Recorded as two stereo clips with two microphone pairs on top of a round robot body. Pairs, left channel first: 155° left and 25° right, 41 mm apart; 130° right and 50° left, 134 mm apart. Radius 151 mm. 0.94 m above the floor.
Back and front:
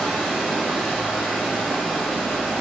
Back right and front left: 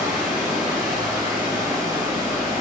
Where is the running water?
115° right, 1.9 m.